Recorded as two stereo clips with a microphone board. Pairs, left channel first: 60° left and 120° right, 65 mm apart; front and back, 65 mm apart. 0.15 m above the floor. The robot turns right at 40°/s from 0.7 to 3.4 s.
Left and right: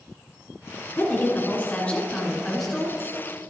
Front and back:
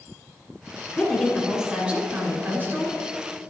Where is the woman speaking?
80° left, 2 m; by 3.0 s 165° left, 2 m.